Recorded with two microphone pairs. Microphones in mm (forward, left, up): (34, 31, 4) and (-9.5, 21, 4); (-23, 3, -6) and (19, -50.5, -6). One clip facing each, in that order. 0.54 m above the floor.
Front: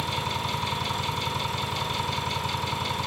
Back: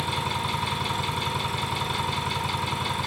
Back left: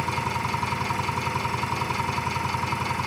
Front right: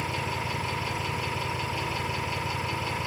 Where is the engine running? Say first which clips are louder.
Back 1 dB, back left 4 dB; 115° left, 4 m.